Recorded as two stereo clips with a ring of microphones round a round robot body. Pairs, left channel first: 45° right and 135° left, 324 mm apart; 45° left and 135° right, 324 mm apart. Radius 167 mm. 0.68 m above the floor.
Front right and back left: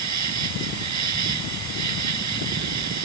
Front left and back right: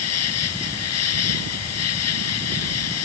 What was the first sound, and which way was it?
An insect, 90° left.